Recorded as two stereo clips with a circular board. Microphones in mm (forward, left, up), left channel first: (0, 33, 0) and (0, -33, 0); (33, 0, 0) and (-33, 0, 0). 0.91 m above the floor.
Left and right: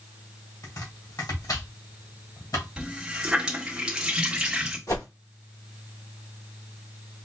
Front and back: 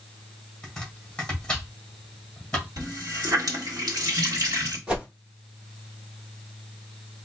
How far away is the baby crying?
No baby crying in this recording.